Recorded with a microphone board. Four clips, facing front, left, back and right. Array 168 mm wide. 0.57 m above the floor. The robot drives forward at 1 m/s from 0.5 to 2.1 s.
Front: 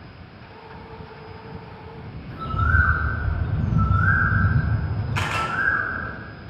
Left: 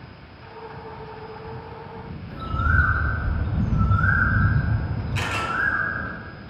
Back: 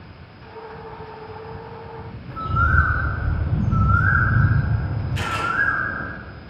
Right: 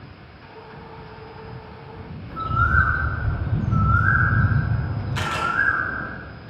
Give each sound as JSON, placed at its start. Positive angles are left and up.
{"t": 2.3, "sound": "a bird", "azimuth_deg": -140, "distance_m": 3.0}
{"t": 5.2, "sound": "a camera shutter", "azimuth_deg": -25, "distance_m": 3.0}